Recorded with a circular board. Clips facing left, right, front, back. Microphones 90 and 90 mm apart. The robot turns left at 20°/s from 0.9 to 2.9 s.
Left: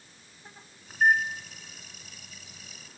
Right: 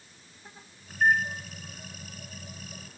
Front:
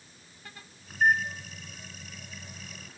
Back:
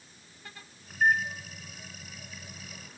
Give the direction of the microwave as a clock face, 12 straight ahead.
10 o'clock.